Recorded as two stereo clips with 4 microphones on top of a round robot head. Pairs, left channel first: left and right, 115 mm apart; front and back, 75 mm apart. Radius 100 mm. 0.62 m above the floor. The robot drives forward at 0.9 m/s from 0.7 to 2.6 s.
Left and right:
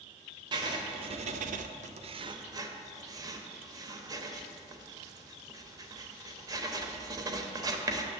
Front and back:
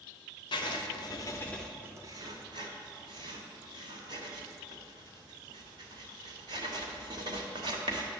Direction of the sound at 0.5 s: 30° right.